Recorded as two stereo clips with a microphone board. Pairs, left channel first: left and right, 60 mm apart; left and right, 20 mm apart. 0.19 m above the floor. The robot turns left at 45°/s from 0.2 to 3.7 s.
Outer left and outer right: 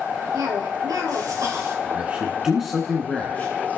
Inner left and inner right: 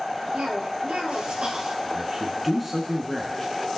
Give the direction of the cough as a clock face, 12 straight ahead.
2 o'clock.